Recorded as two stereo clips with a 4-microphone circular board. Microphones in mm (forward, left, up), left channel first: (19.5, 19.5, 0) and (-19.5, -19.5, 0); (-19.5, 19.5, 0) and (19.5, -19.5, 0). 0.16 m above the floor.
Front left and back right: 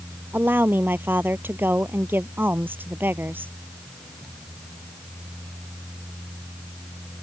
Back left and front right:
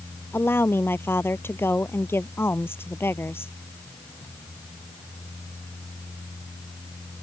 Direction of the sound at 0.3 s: 175° left.